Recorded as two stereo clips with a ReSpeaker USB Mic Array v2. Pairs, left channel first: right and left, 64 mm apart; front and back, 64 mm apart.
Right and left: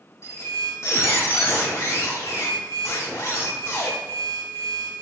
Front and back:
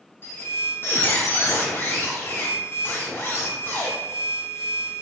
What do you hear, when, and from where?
0.2 s a squeak: 50° right, 1.8 m